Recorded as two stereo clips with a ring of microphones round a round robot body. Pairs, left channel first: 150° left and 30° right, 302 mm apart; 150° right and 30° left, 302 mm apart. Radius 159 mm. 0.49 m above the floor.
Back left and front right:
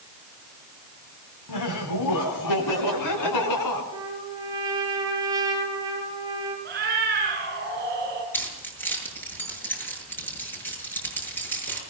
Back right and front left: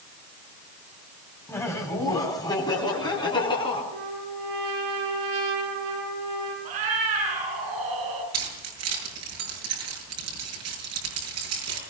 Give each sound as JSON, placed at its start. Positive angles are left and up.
{"t": 1.5, "sound": "laughter", "azimuth_deg": 130, "distance_m": 3.5}
{"t": 3.9, "sound": "a trumpet", "azimuth_deg": 50, "distance_m": 8.0}
{"t": 6.7, "sound": "a cat meowing", "azimuth_deg": 30, "distance_m": 6.5}
{"t": 8.3, "sound": "keys jangling", "azimuth_deg": 65, "distance_m": 7.5}